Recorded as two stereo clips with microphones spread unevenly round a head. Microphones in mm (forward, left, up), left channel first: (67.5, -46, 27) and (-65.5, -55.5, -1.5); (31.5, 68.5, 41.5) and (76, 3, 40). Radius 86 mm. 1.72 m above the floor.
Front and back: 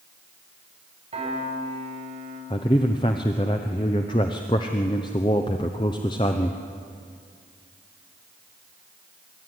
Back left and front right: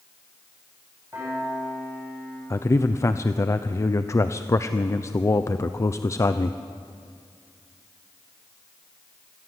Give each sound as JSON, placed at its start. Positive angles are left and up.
{"t": 1.1, "sound": "a piano", "azimuth_deg": -130, "distance_m": 9.5}
{"t": 2.5, "sound": "a man speaking", "azimuth_deg": 70, "distance_m": 0.9}